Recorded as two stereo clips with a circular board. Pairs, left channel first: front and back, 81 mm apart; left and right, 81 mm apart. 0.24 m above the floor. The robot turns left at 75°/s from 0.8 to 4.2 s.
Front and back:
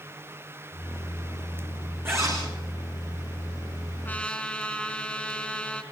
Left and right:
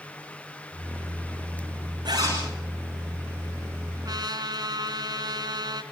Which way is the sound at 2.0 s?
120° right.